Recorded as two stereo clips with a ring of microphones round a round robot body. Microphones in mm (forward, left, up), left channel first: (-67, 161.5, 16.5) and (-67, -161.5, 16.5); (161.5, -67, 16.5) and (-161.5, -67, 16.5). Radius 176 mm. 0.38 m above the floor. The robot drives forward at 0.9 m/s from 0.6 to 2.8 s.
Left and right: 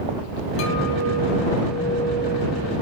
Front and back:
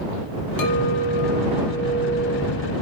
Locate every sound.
0.6 s a clink: 35° left, 2.5 m; by 2.7 s 85° left, 1.8 m